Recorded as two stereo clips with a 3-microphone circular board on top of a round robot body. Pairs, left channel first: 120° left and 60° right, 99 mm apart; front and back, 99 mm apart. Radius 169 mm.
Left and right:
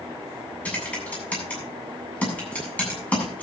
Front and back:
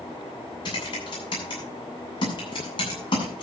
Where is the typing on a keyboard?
45° left, 8 m.